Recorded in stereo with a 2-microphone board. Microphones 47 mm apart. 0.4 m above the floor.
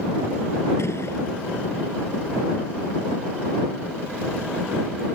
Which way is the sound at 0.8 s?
80° left.